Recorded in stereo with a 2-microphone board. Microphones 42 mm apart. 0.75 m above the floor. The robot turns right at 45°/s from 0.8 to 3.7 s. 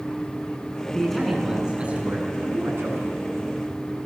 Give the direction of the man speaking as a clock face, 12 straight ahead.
6 o'clock.